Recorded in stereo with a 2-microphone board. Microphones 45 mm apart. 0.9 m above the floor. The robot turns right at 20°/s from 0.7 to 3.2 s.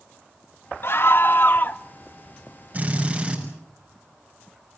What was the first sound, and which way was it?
A scream, 55° left (ahead or behind).